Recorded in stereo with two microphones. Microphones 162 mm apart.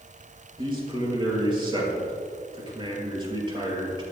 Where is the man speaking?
30° right (ahead or behind), 5 m.